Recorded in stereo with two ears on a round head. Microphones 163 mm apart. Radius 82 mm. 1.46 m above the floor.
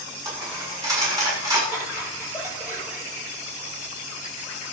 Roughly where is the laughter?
Centre.